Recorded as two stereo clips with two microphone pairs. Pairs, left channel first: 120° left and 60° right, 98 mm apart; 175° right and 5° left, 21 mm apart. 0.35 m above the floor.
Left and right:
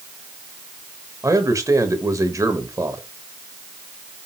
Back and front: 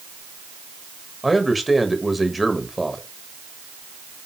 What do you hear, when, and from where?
1.2 s a man speaking: 80° right, 1.4 m